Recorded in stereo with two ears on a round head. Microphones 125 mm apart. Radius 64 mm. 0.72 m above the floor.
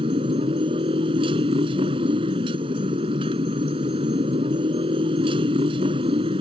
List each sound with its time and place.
0.0 s a motorcycle: 40° right (ahead or behind)